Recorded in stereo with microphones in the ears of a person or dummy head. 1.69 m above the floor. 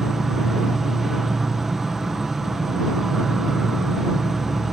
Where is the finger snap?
No finger snap in this recording.